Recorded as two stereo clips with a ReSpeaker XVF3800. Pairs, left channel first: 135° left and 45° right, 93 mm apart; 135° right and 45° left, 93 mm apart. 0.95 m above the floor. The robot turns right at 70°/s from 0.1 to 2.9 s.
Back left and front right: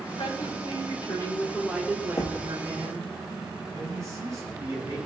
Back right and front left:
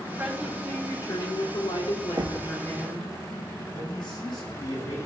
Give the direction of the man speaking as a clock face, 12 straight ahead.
3 o'clock.